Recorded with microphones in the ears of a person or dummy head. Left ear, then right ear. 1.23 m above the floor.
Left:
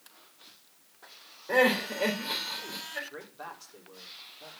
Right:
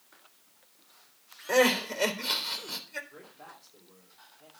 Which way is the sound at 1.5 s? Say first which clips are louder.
Even; 85° right.